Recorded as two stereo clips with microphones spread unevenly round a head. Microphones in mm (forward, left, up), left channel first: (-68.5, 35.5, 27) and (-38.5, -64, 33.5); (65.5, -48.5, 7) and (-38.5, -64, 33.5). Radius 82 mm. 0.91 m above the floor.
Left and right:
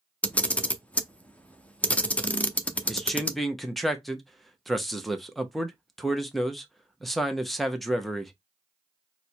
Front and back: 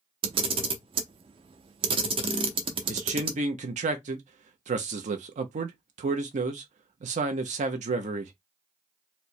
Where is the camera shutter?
175° right, 0.6 m.